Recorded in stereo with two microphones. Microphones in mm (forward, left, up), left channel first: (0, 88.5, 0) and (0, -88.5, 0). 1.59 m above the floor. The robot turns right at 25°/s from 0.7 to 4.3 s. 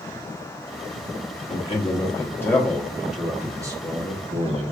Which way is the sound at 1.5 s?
145° left.